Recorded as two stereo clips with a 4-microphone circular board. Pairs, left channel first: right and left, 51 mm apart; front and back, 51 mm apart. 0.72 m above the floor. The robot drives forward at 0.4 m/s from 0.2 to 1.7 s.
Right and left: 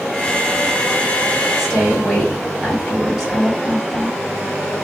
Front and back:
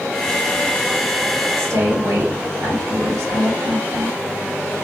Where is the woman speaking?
170° left, 1.8 m.